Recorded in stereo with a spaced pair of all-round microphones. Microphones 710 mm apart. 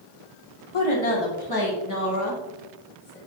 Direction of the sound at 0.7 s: 45° left (ahead or behind).